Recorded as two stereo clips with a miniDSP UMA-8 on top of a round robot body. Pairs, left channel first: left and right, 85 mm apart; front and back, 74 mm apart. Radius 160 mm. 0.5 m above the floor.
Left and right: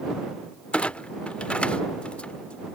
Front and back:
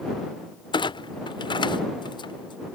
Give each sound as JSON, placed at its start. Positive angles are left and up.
{"t": 0.7, "sound": "a clunk", "azimuth_deg": 15}